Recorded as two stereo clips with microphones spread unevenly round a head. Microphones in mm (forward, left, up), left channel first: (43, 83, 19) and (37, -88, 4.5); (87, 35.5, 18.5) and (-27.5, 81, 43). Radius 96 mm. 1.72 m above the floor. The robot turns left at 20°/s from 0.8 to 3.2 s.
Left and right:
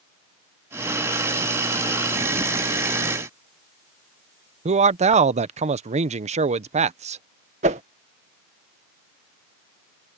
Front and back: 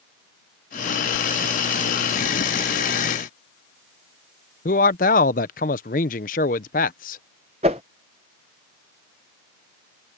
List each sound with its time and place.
4.7 s a man speaking: 45° right
7.6 s a whoosh: 150° right